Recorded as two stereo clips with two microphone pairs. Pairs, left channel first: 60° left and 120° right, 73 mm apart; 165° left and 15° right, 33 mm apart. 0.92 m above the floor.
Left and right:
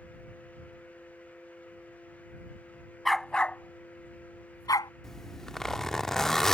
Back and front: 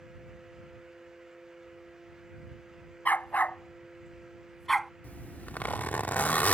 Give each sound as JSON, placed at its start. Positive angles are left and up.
{"t": 3.0, "sound": "a dog barking", "azimuth_deg": 150}
{"t": 5.0, "sound": "a zipper", "azimuth_deg": 140}